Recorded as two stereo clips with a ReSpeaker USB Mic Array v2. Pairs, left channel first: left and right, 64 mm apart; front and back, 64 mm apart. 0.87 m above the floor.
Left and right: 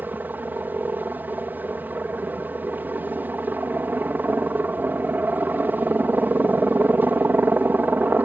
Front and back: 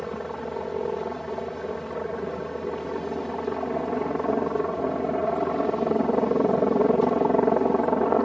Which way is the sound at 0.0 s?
80° right.